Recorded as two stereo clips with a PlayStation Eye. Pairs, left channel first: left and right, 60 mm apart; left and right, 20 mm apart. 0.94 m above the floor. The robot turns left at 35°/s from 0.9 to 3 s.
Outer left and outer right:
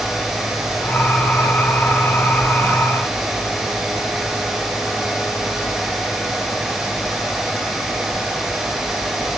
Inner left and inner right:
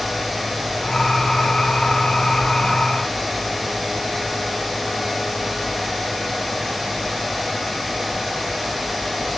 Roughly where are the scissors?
I don't hear scissors.